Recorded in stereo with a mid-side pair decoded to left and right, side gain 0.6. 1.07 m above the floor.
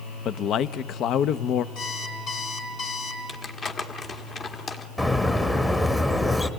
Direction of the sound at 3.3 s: 35° left.